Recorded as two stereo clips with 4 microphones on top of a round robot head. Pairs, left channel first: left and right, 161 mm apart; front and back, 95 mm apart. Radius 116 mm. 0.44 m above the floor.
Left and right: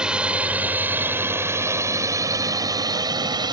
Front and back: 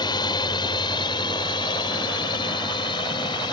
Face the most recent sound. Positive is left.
turn(degrees=-30)